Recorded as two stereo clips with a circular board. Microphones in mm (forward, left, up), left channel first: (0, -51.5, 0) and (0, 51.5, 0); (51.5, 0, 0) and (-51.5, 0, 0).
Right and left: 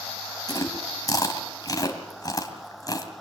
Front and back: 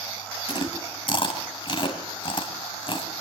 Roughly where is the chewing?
Ahead right.